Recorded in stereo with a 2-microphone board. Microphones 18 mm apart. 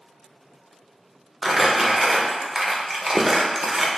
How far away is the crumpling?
About 0.6 m.